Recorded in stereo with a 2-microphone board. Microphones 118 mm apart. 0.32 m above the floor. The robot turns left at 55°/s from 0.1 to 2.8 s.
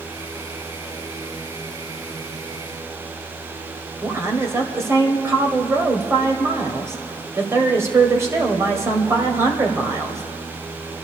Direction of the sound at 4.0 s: 25° right (ahead or behind).